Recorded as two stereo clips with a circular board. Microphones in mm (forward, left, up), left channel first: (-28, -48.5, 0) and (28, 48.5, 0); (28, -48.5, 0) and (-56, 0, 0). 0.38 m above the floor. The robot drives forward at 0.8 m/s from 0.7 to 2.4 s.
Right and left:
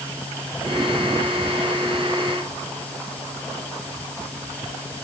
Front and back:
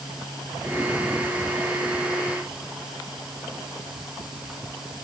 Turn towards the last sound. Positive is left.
No sound to turn to.